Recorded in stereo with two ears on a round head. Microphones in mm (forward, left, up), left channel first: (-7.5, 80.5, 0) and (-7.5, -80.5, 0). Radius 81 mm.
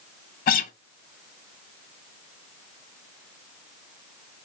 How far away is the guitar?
About 0.6 m.